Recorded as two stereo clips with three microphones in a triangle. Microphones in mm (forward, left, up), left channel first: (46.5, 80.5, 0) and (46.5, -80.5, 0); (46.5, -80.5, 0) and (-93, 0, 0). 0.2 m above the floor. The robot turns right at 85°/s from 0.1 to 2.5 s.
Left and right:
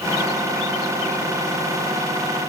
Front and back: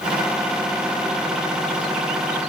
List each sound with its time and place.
Only background noise.